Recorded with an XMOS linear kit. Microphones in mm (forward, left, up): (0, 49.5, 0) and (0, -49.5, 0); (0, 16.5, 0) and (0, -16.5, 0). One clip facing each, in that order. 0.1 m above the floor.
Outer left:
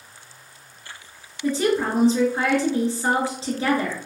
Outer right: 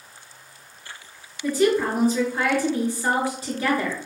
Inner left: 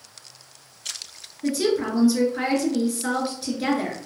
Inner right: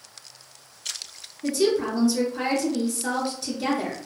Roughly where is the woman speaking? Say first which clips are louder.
Outer right 1 dB, even; left.